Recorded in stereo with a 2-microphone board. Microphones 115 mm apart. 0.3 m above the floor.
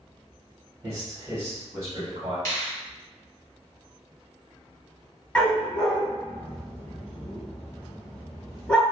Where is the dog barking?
10° left (ahead or behind), 0.8 m.